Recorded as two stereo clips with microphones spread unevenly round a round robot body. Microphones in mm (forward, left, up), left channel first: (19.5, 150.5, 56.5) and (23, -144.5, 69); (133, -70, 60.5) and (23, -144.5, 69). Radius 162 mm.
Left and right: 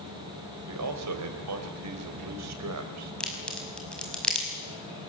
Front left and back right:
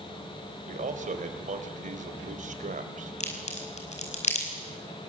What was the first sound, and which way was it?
A man speaking, 125° right.